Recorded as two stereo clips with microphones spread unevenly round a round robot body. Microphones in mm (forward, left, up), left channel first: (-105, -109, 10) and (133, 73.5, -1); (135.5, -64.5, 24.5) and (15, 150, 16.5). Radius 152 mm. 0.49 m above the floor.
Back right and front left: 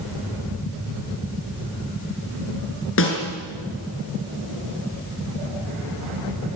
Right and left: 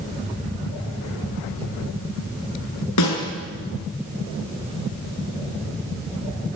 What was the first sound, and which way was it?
A snare drum, 95° right.